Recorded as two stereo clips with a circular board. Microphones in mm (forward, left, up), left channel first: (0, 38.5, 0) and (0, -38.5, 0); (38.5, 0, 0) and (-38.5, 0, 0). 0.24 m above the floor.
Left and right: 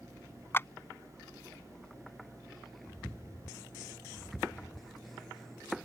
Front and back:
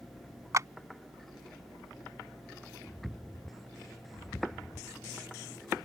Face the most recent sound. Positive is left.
turn(degrees=145)